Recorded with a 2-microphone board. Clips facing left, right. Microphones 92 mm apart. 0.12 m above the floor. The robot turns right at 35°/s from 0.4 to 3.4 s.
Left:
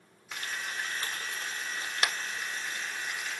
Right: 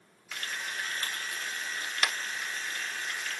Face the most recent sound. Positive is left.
turn(degrees=10)  # may be behind; listen again after turning